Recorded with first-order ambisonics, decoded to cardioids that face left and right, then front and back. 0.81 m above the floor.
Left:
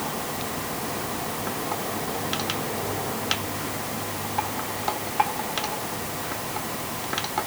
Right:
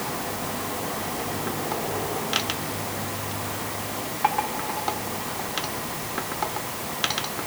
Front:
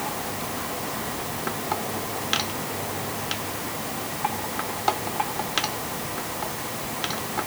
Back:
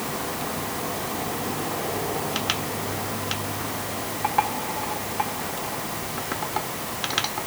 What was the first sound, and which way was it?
Only background noise.